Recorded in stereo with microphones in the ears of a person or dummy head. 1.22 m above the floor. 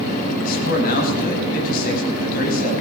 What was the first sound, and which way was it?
A man speaking, 60° left (ahead or behind).